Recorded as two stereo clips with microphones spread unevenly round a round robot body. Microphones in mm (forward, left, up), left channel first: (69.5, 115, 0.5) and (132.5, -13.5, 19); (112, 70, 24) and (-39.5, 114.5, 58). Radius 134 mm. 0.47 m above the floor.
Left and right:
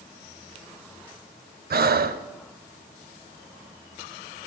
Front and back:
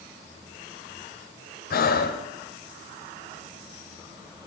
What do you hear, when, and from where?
1.7 s breathing: 45° right, 0.9 m